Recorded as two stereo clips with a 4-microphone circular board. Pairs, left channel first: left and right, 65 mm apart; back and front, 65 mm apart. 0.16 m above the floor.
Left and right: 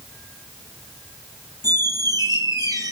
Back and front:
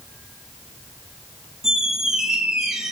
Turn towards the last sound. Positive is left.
turn(degrees=-85)